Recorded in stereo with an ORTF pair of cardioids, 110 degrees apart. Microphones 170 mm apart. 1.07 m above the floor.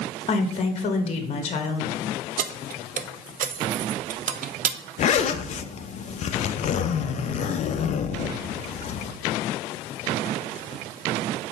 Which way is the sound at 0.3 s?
45° left.